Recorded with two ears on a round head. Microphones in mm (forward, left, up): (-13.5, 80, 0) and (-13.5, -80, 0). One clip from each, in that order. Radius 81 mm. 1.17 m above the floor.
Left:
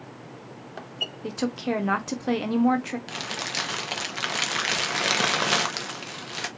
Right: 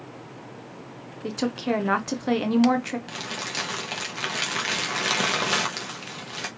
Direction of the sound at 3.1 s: 15° left (ahead or behind).